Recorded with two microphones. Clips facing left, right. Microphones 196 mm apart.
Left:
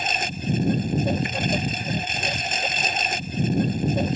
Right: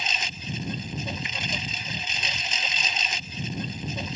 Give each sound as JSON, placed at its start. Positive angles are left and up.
{"t": 0.0, "sound": "a lawn mower", "side_deg": 55}